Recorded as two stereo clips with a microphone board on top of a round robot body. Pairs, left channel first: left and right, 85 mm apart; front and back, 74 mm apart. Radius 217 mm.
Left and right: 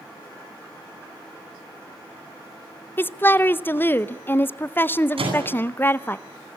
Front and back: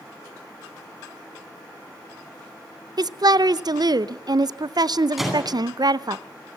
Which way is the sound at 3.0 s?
155° left.